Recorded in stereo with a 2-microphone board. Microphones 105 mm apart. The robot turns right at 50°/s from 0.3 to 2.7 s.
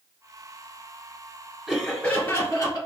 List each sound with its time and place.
1.7 s laughter: 5° right, 1.7 m; by 2.9 s 45° left, 1.7 m